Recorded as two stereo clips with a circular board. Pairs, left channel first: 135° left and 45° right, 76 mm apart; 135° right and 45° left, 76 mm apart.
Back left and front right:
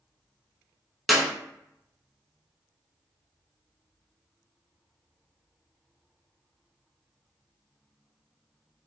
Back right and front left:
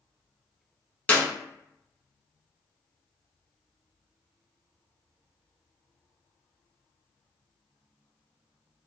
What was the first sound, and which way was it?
A clap, 135° right.